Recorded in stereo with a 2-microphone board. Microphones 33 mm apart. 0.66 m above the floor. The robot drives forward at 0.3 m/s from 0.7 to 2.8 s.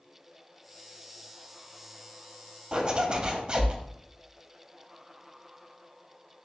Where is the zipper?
25° right (ahead or behind), 0.5 m; by 3.8 s 30° right (ahead or behind), 0.5 m.